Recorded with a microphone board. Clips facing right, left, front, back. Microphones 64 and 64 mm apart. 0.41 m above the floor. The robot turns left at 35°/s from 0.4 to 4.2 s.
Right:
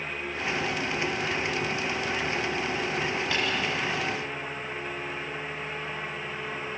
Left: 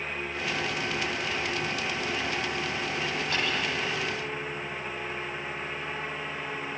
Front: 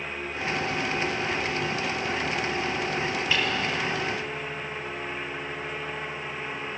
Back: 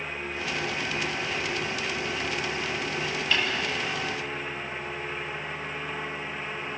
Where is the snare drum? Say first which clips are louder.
Even, even; 80° right, 5.5 m; by 3.5 s 85° right, 5.5 m.